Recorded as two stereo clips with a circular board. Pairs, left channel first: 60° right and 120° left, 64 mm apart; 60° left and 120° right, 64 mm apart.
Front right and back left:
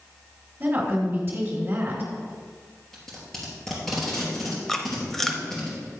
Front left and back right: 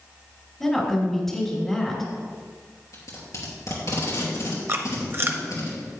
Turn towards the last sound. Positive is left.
turn(degrees=-140)